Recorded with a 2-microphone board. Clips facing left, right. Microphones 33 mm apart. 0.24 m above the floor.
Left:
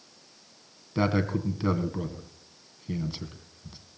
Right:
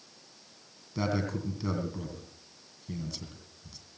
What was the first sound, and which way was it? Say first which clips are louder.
A man speaking: left 5 dB; 30° left (ahead or behind).